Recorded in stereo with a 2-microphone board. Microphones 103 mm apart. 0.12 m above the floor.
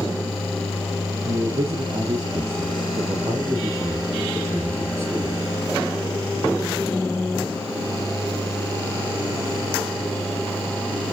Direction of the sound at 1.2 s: 65° right (ahead or behind).